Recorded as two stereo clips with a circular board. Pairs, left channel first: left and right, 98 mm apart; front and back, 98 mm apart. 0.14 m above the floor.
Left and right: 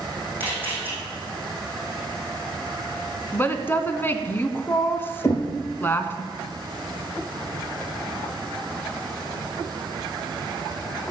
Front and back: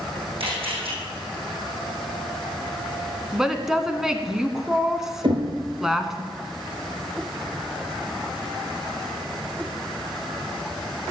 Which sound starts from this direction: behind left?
Knocking, at 5.2 s.